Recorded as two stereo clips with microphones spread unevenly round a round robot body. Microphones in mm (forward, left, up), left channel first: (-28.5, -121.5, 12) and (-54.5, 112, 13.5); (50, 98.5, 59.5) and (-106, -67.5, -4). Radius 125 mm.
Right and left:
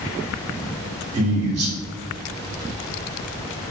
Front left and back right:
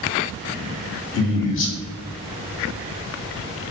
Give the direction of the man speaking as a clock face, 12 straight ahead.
10 o'clock.